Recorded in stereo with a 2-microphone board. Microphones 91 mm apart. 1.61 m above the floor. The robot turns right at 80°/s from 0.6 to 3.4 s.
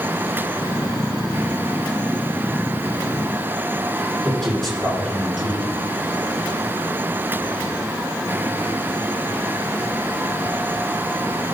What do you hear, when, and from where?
4.2 s a man speaking: centre (ahead or behind), 6 m